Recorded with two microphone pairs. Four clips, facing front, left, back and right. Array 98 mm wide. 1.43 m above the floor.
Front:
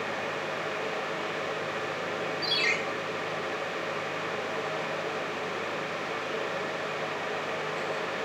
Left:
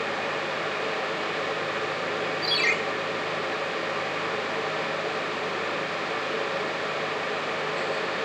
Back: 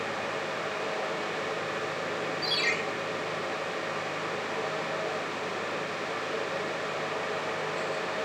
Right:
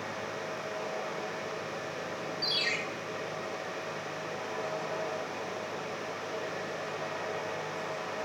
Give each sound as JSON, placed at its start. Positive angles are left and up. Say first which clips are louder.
{"t": 2.4, "sound": "a ringtone", "louder": "left 8 dB, front 1 dB", "azimuth_deg": 85, "distance_m": 1.4}